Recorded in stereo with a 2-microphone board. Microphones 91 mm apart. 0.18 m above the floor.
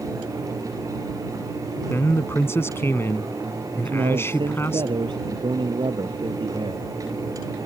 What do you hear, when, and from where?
1.9 s a man speaking: 30° left (ahead or behind)
3.9 s a man speaking: 60° right (ahead or behind)